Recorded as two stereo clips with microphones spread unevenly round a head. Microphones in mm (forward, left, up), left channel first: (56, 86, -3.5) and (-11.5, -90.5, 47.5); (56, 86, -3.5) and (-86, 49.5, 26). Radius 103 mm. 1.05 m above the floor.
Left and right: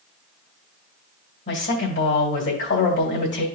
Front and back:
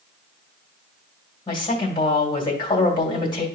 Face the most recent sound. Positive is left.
turn(degrees=65)